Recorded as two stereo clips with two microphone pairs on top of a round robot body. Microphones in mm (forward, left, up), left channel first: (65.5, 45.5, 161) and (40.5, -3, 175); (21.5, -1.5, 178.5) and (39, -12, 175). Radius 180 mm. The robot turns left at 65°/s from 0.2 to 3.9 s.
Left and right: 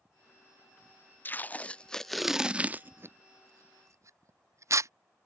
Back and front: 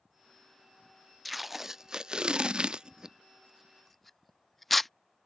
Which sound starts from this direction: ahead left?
Tape being pulled, at 1.2 s.